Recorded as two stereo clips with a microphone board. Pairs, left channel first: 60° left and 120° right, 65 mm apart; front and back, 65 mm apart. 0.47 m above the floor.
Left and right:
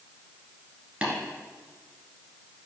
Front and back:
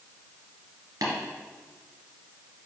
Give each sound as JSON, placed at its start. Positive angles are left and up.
{"t": 1.0, "sound": "tapping", "azimuth_deg": 165, "distance_m": 1.9}